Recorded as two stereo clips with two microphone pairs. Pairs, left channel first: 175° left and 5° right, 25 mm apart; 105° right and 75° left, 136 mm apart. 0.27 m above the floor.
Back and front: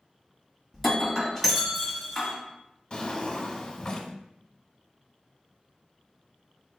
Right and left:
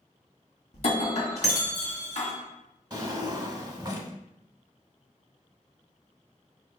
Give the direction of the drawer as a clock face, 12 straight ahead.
8 o'clock.